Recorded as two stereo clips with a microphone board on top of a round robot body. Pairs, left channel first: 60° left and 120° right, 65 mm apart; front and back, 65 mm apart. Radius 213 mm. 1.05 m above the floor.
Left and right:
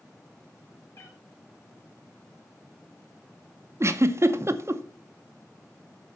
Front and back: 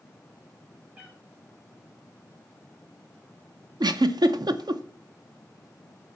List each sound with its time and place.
0.9 s a cat meowing: 105° left, 1.7 m
3.8 s a giggle: 170° right, 0.7 m